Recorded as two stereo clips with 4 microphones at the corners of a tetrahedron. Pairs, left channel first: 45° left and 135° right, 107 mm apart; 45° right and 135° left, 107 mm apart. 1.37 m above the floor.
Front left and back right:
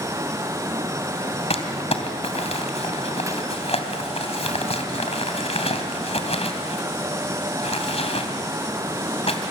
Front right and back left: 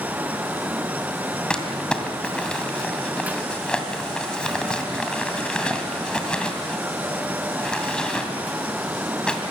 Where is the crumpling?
35° left, 2.5 m.